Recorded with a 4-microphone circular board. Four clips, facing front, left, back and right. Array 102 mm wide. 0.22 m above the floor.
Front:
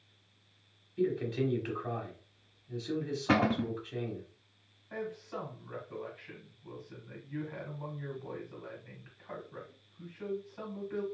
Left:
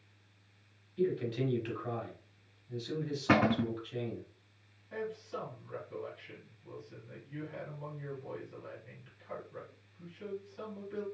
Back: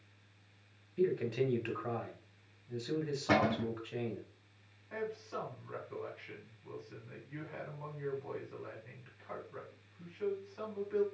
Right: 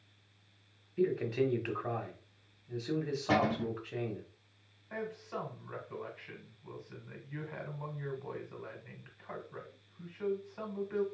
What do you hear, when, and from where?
1.0 s a man speaking: 105° right, 1.2 m
3.3 s a cupboard door: 75° left, 0.7 m
4.9 s a man speaking: 90° right, 1.9 m